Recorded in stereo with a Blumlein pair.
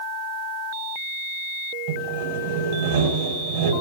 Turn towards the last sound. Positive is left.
turn(degrees=-45)